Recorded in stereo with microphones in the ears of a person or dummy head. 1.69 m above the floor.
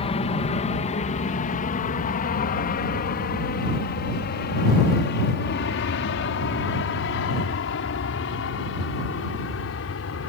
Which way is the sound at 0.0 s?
30° left (ahead or behind).